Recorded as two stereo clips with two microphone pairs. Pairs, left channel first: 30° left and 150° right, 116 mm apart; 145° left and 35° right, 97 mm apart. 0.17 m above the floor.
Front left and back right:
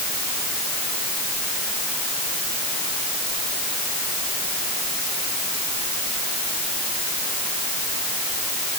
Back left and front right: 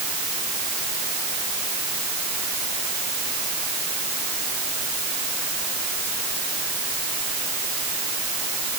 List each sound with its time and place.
Only background noise.